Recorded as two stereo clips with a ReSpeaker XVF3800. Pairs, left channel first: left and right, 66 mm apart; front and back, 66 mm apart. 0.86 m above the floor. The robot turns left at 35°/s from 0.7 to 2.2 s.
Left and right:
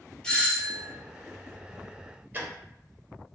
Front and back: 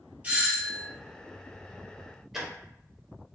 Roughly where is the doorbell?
Behind left.